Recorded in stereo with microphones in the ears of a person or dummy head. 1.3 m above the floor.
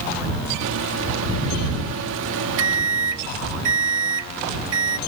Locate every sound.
0.6 s a microwave: 70° right (ahead or behind)